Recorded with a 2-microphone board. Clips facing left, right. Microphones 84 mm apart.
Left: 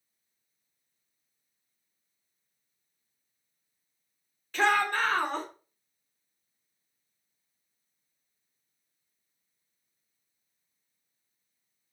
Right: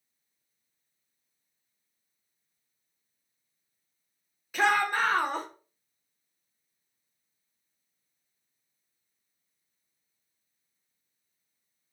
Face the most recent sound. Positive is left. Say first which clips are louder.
# even
turn(degrees=-10)  # may be behind; listen again after turning